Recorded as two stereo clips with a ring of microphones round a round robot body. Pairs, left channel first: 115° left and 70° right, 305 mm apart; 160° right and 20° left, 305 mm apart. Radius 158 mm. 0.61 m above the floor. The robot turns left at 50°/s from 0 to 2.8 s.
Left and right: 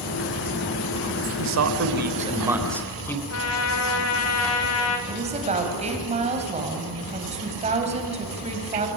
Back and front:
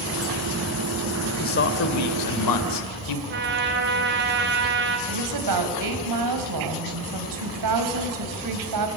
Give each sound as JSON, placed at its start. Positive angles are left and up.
{"t": 1.4, "sound": "a man speaking", "azimuth_deg": -95, "distance_m": 2.5}
{"t": 3.3, "sound": "a trumpet", "azimuth_deg": 75, "distance_m": 3.0}
{"t": 5.1, "sound": "a woman speaking", "azimuth_deg": 0, "distance_m": 4.0}